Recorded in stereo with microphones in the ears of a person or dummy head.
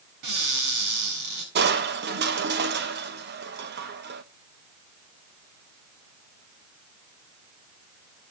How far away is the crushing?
About 0.9 m.